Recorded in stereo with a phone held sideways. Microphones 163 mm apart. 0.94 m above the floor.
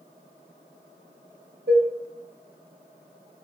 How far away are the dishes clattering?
About 3.5 m.